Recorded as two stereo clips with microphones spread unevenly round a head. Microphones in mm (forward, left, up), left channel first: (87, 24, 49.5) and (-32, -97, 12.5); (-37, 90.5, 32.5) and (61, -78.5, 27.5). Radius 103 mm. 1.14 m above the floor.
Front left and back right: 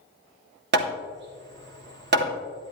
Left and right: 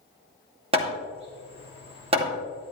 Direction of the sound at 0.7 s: 125° right.